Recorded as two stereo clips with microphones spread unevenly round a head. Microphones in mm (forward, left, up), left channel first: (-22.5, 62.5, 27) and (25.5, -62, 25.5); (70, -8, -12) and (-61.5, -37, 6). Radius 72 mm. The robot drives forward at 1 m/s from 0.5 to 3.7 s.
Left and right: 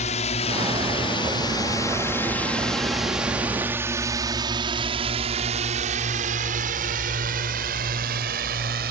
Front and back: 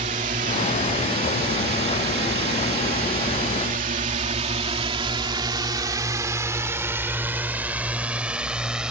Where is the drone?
150° left; by 8.9 s 85° right.